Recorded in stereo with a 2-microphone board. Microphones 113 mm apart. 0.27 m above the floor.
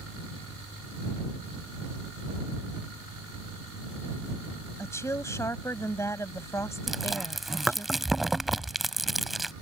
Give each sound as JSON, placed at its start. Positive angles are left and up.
{"t": 4.8, "sound": "a woman speaking", "side_deg": 25}
{"t": 6.9, "sound": "chewing", "side_deg": 0}